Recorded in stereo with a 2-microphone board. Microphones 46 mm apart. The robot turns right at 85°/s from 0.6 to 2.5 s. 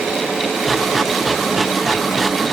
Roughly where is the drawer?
No drawer in this recording.